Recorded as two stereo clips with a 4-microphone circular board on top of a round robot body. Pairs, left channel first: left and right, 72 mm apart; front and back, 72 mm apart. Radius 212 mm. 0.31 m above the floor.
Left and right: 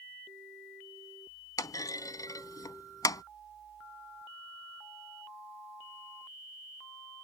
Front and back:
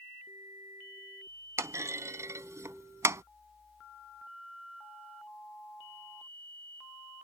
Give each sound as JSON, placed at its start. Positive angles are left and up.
{"t": 1.6, "sound": "a clunk", "azimuth_deg": 130}